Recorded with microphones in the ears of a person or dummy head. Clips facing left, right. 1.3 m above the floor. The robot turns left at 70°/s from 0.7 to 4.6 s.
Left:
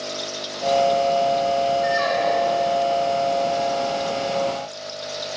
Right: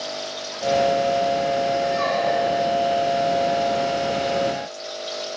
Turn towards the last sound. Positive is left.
turn(degrees=-155)